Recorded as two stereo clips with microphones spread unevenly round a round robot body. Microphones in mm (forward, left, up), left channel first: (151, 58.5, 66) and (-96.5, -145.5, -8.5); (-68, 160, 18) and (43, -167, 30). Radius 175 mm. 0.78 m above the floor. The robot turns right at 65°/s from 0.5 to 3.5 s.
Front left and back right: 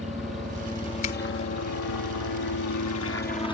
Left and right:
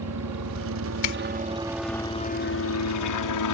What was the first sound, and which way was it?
A helicopter, 65° right.